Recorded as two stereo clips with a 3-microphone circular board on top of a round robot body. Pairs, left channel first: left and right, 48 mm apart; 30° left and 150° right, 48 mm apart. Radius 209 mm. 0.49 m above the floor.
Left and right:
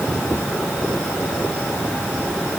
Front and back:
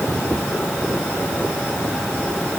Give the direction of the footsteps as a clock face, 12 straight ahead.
No footsteps in this recording.